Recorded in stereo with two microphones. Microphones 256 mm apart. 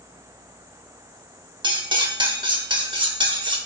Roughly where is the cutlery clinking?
Centre.